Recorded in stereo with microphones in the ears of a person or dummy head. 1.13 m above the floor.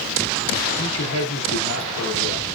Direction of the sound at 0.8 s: 80° left.